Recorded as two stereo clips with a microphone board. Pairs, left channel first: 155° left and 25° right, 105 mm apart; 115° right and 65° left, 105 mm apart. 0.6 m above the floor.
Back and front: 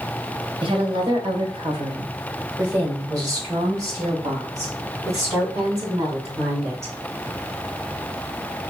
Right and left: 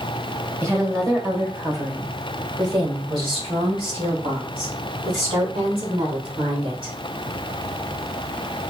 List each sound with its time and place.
0.6 s a woman speaking: 5° left, 1.4 m; by 6.9 s 40° left, 4.5 m